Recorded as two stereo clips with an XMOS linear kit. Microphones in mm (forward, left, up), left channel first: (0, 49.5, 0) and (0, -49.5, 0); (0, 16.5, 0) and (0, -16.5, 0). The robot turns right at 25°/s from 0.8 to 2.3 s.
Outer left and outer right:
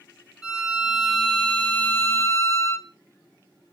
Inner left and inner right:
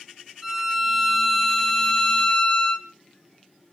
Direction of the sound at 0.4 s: 5° right.